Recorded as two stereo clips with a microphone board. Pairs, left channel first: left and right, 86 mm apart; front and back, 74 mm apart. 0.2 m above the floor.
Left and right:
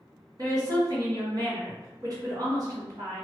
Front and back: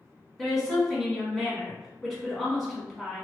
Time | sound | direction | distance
0.4 | a woman speaking | 90° right | 1.4 m